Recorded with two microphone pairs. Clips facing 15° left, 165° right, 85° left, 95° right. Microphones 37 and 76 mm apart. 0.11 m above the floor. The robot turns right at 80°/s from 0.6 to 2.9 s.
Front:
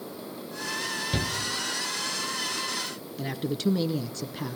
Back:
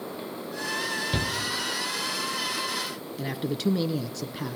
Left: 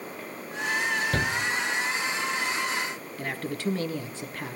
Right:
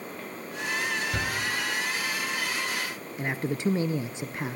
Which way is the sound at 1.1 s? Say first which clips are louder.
Even, left 3 dB; 110° left.